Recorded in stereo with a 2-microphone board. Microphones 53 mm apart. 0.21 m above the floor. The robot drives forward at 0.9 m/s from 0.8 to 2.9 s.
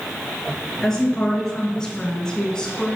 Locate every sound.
0.8 s a woman speaking: 10° left (ahead or behind), 3.5 m; by 3.0 s 15° left (ahead or behind), 2 m